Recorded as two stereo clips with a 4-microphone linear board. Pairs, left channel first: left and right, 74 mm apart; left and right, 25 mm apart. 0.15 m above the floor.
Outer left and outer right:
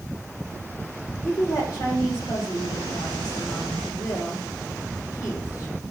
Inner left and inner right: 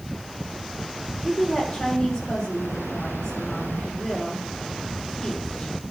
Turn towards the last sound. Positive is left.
turn(degrees=45)  # may be behind; listen again after turning